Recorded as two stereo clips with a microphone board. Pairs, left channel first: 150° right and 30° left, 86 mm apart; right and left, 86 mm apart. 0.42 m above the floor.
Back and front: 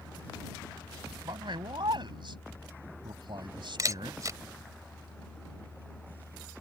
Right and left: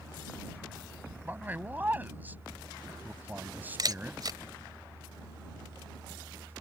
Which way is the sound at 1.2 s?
25° left.